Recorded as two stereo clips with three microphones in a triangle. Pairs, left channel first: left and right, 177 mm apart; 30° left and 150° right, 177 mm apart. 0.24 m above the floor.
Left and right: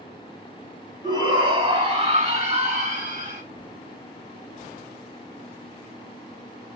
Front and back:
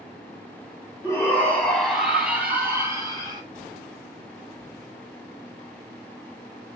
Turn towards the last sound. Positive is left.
turn(degrees=-90)